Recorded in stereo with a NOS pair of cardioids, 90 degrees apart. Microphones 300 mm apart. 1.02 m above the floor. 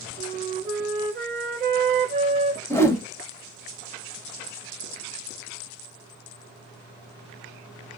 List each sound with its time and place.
0.2 s a flute: 35° right, 0.8 m
2.7 s a whoosh: 10° left, 0.5 m